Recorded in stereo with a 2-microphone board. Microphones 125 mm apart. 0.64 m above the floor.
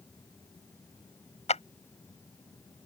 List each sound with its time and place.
1.5 s a clap: 65° left (ahead or behind)